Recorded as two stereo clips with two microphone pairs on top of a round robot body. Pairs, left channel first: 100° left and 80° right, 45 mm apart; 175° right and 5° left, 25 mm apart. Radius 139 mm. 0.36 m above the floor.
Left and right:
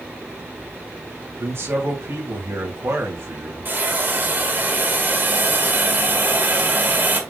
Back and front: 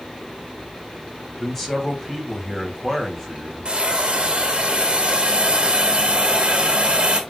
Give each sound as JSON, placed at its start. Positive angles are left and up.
{"t": 1.4, "sound": "a man speaking", "azimuth_deg": -90, "distance_m": 3.5}
{"t": 3.6, "sound": "a hiss", "azimuth_deg": -40, "distance_m": 3.0}